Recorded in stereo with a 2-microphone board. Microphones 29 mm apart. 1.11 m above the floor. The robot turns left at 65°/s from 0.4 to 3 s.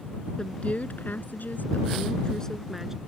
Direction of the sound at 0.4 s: 150° left.